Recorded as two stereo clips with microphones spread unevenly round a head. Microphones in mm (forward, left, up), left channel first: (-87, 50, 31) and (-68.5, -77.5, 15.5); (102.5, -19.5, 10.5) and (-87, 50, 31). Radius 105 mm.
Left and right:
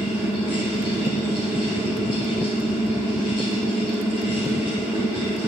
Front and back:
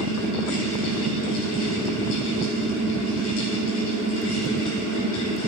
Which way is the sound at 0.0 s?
Straight ahead.